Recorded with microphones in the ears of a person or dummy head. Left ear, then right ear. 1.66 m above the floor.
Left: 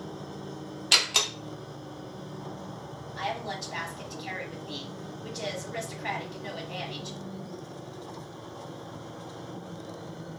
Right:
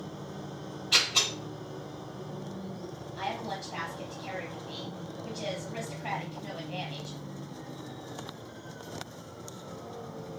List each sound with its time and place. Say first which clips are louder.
0.9 s a door slam: left 2 dB; 30° left (ahead or behind), 0.6 m
3.2 s a woman speaking: left 2 dB; 15° left (ahead or behind), 1.0 m